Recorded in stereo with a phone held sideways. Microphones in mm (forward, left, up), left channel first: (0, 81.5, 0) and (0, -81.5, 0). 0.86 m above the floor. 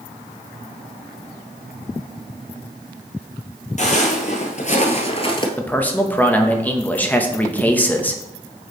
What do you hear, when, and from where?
3.8 s footsteps: 50° left (ahead or behind), 1.5 m; by 5.5 s 30° left (ahead or behind), 1.2 m
5.6 s a man speaking: 10° left (ahead or behind), 0.8 m